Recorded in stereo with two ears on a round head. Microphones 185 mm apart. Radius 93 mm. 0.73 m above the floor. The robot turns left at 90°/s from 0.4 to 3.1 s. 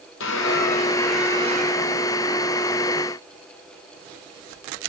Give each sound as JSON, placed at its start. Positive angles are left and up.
{"t": 0.2, "sound": "a squeak", "azimuth_deg": 70, "distance_m": 2.0}